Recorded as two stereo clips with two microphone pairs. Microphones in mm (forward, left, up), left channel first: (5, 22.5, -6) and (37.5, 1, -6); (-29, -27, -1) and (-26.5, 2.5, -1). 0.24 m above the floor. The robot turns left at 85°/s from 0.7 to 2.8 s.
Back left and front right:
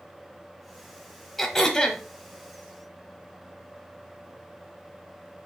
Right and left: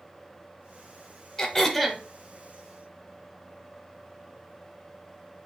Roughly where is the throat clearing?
Behind right.